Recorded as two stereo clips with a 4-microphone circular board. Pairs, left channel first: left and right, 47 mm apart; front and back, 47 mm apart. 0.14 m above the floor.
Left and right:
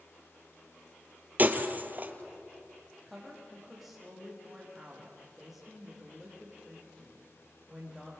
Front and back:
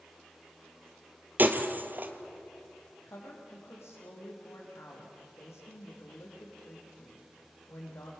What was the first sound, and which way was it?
Breaking glass, 135° right.